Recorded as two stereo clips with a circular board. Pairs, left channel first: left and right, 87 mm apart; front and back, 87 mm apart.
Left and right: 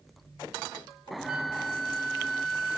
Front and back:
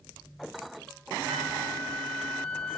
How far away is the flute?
About 1.2 m.